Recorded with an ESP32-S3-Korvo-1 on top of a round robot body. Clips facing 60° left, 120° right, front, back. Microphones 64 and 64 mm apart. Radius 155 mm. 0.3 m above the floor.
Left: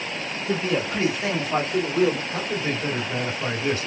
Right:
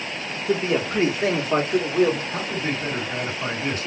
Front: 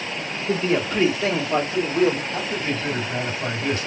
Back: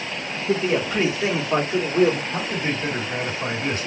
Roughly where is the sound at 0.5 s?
Right.